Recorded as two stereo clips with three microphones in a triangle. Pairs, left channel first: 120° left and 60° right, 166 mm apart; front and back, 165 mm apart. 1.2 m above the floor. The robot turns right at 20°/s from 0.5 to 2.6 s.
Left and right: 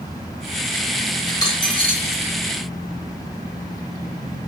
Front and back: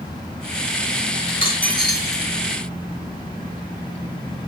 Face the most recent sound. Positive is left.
turn(degrees=80)